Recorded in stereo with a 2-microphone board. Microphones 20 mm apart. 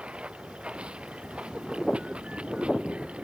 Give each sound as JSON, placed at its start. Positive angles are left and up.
{"t": 0.0, "sound": "running water", "side_deg": -65}